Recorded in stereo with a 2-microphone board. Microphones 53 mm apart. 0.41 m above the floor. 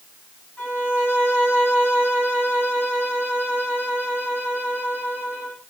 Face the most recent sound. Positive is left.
turn(degrees=35)  # may be behind; listen again after turning